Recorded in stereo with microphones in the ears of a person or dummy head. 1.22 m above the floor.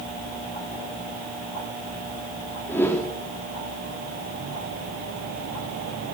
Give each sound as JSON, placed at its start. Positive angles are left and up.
{"t": 2.7, "sound": "a whoosh", "side_deg": 10, "distance_m": 3.0}